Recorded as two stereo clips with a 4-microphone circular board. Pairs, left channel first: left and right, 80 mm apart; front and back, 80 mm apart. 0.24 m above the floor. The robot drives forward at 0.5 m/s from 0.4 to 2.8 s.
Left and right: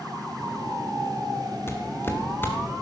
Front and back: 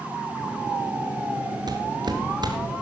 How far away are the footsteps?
About 2.5 m.